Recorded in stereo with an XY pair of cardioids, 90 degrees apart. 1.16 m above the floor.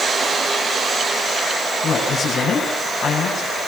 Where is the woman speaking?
65° left, 9 m.